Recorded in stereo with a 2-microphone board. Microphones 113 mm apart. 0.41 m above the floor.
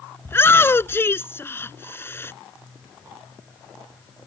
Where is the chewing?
No chewing in this recording.